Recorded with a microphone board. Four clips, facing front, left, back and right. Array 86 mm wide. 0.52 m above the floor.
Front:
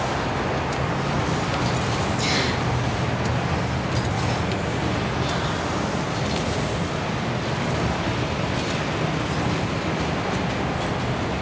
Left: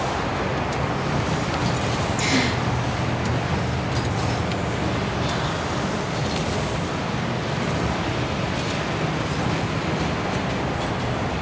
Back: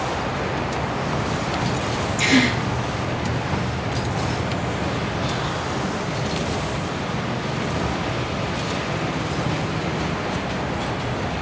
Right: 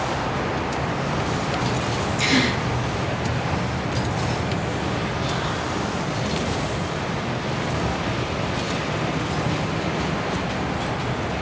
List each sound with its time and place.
2.2 s a gasp: 165° right, 4.5 m